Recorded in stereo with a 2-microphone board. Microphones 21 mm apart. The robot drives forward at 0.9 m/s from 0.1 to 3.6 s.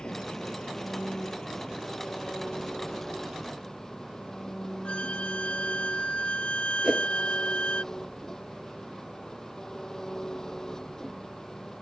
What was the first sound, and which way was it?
An engine running, 40° left (ahead or behind).